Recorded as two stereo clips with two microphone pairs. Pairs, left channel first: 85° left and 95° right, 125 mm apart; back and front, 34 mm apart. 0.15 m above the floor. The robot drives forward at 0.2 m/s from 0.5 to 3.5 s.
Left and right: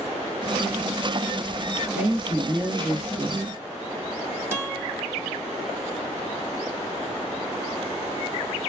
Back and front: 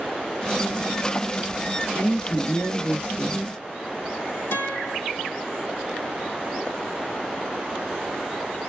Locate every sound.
1.9 s a woman speaking: 170° right, 2 m; by 3.5 s 175° right, 2.5 m
4.5 s a guitar: 170° right, 4 m